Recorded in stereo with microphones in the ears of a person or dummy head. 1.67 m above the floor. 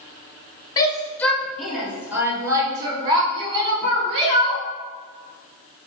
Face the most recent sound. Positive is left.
turn(degrees=-35)  # may be behind; listen again after turning